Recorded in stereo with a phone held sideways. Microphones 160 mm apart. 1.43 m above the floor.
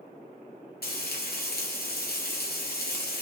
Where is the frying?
75° left (ahead or behind), 1.1 m.